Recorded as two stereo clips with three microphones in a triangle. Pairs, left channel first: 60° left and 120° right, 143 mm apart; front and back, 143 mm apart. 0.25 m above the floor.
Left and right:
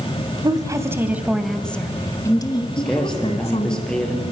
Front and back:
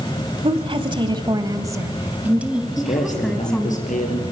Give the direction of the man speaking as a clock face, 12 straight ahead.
1 o'clock.